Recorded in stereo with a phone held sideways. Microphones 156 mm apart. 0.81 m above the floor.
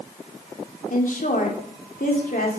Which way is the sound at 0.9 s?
60° left (ahead or behind).